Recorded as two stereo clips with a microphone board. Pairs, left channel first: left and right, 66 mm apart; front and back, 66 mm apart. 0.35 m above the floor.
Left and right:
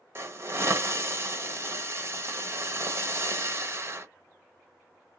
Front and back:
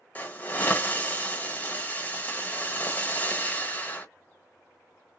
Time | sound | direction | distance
0.1 | a hiss | 60° right | 0.9 m